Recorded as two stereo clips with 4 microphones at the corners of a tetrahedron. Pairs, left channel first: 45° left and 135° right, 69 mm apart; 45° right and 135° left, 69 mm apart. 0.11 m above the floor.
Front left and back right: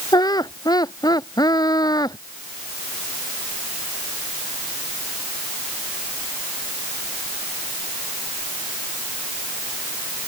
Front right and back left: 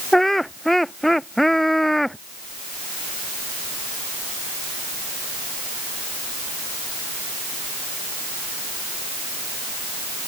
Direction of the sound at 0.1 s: 40° left.